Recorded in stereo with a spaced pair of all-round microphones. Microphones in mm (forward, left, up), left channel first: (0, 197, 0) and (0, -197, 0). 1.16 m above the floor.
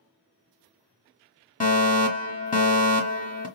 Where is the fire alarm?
20° left (ahead or behind), 1.4 m.